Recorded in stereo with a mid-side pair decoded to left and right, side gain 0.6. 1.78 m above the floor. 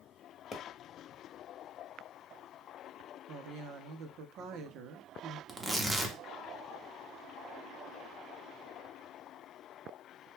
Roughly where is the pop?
Ahead left.